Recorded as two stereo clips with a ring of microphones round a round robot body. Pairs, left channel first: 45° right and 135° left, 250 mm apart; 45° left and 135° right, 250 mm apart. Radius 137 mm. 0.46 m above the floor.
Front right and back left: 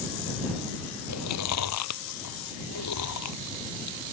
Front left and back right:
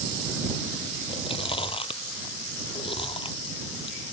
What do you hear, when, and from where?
1.1 s chewing: 25° right